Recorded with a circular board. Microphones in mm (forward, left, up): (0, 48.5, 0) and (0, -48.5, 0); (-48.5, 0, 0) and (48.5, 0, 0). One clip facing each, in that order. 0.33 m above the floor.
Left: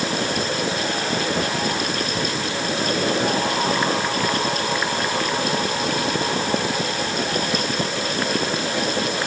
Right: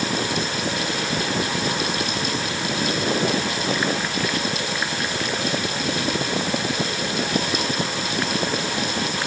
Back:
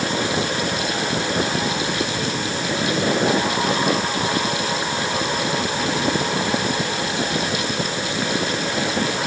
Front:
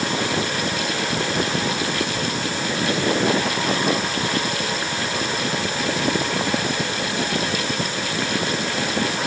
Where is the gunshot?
No gunshot in this recording.